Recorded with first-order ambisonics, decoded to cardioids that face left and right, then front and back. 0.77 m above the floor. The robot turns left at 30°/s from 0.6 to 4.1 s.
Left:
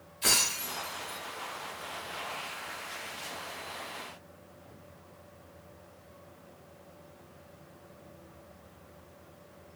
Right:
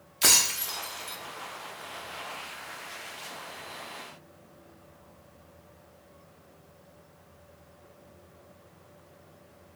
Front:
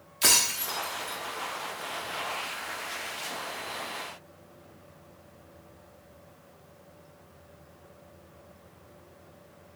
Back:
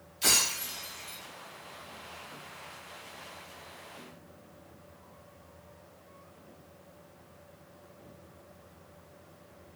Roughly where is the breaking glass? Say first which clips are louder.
Right 4 dB, front 3 dB; ahead right.